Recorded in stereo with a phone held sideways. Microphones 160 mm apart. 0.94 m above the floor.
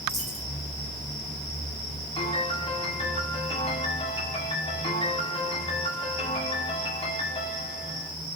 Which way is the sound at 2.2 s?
40° left (ahead or behind).